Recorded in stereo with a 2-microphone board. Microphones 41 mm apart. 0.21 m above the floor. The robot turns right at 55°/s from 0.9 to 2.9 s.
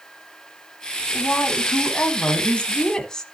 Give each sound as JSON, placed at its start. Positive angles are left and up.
{"t": 1.1, "sound": "a woman speaking", "azimuth_deg": 55, "distance_m": 1.4}